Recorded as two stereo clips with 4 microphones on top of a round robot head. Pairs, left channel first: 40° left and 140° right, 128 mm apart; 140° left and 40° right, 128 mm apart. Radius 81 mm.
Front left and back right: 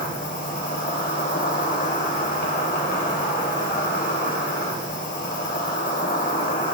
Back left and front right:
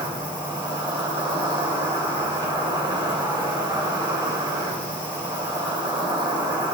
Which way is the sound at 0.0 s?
20° left.